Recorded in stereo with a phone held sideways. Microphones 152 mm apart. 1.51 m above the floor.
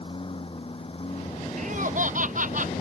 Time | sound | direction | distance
0.0 | a lawn mower | 35° left (ahead or behind) | ?
1.6 | laughter | 60° right (ahead or behind) | ?